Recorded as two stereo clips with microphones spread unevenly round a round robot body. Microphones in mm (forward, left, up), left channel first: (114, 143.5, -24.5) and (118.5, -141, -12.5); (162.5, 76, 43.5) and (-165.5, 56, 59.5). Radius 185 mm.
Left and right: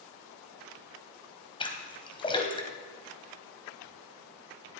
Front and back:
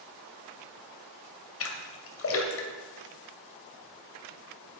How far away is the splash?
About 2.5 m.